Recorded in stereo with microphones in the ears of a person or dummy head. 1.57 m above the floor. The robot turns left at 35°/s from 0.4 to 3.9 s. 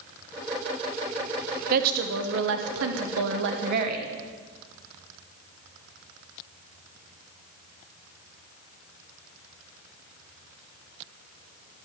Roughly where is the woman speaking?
Ahead right.